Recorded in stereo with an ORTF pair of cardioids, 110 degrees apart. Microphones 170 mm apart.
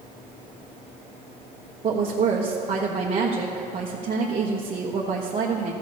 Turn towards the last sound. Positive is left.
turn(degrees=-40)